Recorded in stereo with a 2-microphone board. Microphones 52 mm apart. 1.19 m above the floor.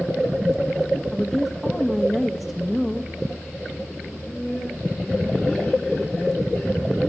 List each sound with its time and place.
1.1 s a woman speaking: 5° left (ahead or behind), 1.4 m
4.1 s laughter: 20° left (ahead or behind), 4.5 m